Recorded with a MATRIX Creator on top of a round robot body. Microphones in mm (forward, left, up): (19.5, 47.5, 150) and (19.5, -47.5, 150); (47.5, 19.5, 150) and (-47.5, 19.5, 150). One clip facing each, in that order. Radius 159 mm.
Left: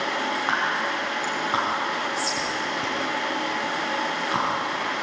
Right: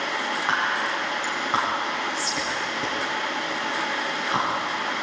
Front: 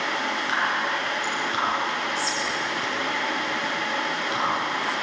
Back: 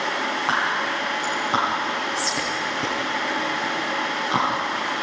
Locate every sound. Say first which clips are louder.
0.5 s whispering: right 2 dB, back 2 dB; straight behind, 5 m